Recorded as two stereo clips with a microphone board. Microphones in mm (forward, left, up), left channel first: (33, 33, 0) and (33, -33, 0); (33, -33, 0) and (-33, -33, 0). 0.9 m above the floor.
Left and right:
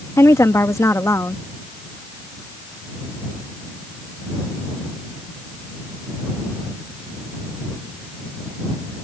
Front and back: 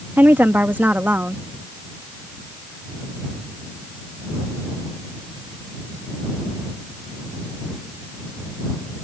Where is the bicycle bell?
No bicycle bell in this recording.